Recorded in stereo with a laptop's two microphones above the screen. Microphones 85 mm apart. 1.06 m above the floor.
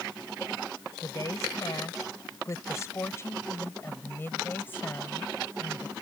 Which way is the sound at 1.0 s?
45° left (ahead or behind).